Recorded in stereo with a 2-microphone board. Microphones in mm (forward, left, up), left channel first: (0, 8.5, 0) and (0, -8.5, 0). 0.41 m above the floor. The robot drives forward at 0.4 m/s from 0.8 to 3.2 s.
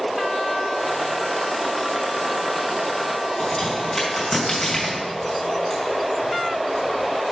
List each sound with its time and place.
3.4 s a crack: 35° left (ahead or behind), 2.5 m